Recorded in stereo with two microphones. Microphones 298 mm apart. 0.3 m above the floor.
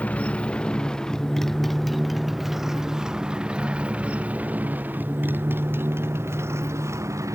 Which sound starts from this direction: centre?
A motorcycle, at 0.0 s.